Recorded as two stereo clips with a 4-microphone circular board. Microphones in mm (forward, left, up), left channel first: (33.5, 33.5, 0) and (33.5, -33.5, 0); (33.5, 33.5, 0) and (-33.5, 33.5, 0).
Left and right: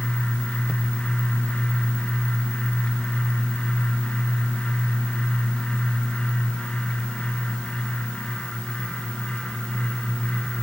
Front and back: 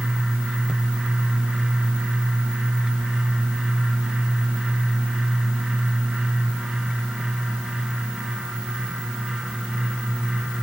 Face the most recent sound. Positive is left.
No sound to turn to.